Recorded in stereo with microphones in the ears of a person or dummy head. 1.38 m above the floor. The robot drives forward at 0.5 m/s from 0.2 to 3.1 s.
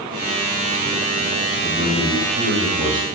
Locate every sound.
1.6 s a man speaking: 40° right (ahead or behind), 3.5 m; by 3.0 s 35° right (ahead or behind), 4 m